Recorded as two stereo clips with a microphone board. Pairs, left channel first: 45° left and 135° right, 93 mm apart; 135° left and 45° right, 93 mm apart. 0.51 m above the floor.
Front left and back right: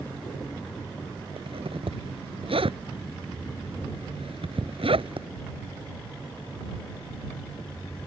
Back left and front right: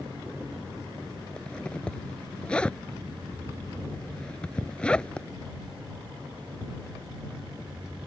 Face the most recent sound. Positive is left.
turn(degrees=-145)